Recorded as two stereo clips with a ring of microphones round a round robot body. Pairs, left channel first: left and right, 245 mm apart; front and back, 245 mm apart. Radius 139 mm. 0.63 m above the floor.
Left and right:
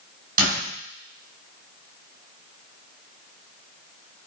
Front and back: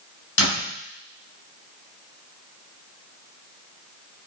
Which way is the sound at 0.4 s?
35° right.